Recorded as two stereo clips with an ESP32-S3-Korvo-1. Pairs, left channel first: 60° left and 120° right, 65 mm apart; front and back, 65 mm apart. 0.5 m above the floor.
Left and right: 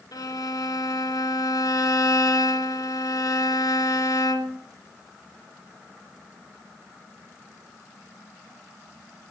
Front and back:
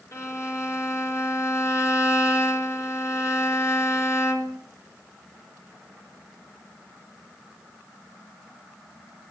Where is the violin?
45° left, 3 m.